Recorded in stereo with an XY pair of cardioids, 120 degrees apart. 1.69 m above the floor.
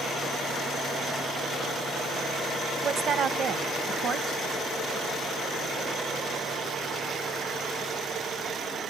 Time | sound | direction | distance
2.8 | a woman speaking | 50° right | 1.2 m